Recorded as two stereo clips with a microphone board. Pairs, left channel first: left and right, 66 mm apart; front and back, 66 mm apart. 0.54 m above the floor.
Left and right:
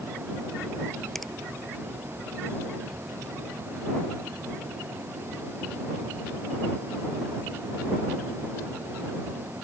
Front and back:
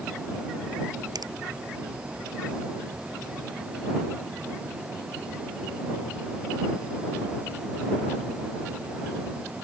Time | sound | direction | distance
1.1 | a finger snap | straight behind | ?